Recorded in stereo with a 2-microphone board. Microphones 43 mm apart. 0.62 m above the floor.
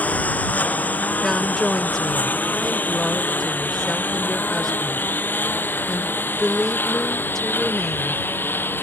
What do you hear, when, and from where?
0.0 s a lawn mower: 35° left (ahead or behind); by 8.8 s 50° left (ahead or behind)
1.2 s a woman speaking: 10° left (ahead or behind)